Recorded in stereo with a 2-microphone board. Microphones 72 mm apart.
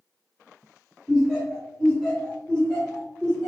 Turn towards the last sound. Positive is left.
turn(degrees=10)  # may be behind; listen again after turning